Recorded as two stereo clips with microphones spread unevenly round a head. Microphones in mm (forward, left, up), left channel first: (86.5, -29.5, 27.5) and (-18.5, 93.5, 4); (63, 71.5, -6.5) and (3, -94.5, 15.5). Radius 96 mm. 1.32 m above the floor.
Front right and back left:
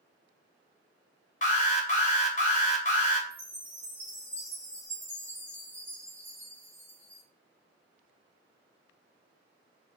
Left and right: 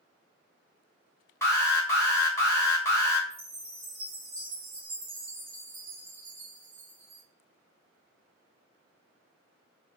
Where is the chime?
130° right, 1.6 m.